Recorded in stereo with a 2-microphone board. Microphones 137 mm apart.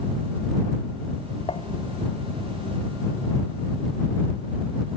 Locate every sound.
1.5 s dishes clattering: 45° left (ahead or behind)